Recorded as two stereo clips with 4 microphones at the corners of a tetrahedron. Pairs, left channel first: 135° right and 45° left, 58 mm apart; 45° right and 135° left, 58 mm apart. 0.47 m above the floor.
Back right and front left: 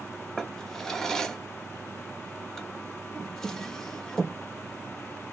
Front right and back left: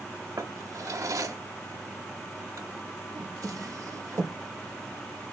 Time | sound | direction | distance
0.4 | a drawer | 145° left | 0.6 m